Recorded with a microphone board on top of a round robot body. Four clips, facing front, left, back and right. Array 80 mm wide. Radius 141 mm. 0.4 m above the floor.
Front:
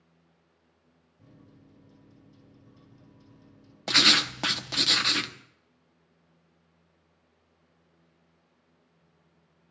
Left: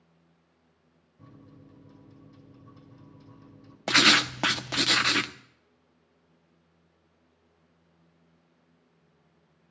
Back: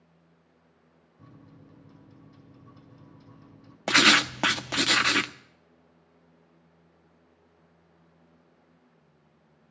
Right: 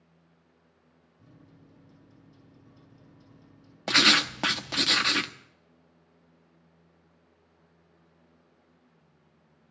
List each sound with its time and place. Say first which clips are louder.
1.2 s a microwave: left 5 dB, back 3 dB; 130° left, 4.5 m
3.9 s writing: left 1 dB, back 5 dB; 165° left, 0.9 m